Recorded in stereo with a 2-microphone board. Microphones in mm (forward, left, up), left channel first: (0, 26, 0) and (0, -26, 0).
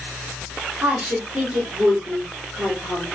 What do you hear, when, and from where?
0.8 s a woman speaking: 5° right (ahead or behind), 1.8 m